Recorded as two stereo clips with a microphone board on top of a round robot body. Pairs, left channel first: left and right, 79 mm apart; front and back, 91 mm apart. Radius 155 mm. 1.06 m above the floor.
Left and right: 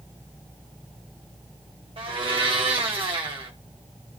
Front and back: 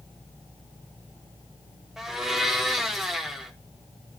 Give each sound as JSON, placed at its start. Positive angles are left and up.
{"t": 2.0, "sound": "a blender", "azimuth_deg": -95, "distance_m": 1.4}